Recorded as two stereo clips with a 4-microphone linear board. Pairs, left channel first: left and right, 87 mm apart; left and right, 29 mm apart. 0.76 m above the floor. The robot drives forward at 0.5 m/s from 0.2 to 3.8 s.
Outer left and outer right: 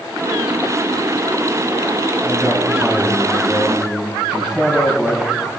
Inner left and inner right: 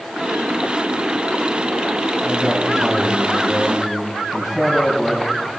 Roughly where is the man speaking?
Centre.